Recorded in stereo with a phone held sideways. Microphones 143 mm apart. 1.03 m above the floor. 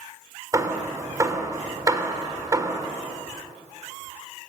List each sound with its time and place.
0.5 s hammering: 25° right (ahead or behind), 3 m